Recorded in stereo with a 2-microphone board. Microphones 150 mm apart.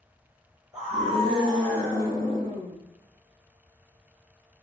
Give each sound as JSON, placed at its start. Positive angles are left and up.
{"t": 0.7, "sound": "a scream", "side_deg": -10, "distance_m": 1.5}